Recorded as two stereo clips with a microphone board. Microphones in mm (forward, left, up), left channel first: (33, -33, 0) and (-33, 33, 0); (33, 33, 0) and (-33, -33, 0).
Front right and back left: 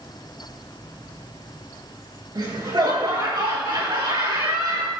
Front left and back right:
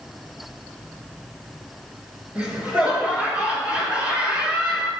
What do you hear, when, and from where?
2.4 s laughter: 150° left, 4 m